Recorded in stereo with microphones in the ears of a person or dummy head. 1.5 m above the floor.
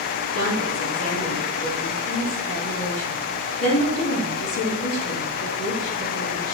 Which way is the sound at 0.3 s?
80° left.